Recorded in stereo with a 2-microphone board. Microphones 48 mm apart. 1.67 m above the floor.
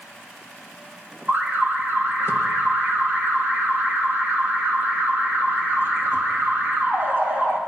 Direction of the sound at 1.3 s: 45° right (ahead or behind).